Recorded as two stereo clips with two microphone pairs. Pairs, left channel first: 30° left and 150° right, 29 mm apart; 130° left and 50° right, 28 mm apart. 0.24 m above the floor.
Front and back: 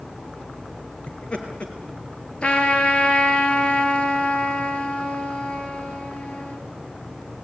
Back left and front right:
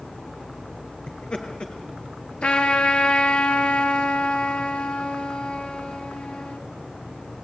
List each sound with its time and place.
1.1 s laughter: 80° left, 4.5 m
2.4 s a trumpet: 85° left, 3 m